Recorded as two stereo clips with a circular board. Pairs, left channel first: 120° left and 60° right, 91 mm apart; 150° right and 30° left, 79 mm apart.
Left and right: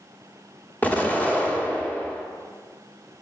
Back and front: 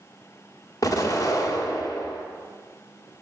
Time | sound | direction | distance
0.8 | an explosion | 175° right | 1.0 m